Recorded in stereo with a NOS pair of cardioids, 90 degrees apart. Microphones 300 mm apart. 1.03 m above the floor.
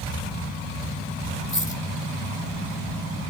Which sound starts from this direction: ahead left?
A dropped coin, at 1.5 s.